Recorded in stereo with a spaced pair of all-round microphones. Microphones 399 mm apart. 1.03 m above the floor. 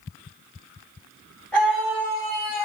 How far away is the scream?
About 3.5 m.